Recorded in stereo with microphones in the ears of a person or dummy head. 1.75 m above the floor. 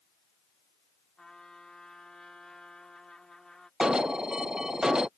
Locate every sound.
1.2 s a trumpet: centre (ahead or behind)
3.8 s an alarm: 5° right (ahead or behind)